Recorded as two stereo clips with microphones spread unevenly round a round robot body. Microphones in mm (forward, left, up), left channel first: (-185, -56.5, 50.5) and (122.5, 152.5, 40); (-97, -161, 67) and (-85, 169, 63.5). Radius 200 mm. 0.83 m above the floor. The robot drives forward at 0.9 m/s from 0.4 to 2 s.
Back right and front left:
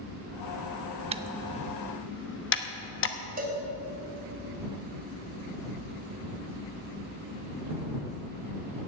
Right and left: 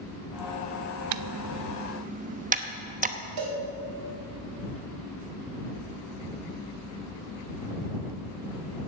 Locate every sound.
1.1 s typing on a keyboard: 105° left, 0.6 m; by 3.2 s 155° left, 1.1 m
3.4 s a cowbell: 100° left, 3.5 m